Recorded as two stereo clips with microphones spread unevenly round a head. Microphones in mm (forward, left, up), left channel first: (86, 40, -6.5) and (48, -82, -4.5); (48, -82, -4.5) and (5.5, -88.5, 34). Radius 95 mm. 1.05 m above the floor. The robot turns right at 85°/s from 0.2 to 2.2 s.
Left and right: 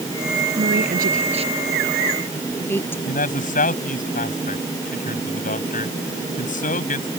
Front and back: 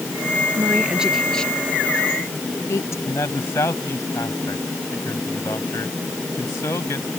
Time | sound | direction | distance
0.6 | a woman speaking | 140° right | ?
3.0 | a man speaking | 60° left | ?